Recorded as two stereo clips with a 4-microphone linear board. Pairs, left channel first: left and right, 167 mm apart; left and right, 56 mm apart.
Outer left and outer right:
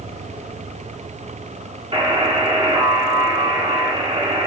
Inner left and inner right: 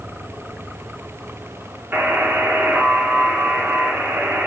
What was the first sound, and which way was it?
A buzzer, 35° right (ahead or behind).